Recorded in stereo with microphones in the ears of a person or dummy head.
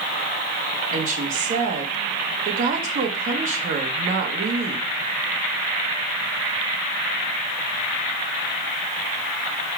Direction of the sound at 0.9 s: 45° right (ahead or behind).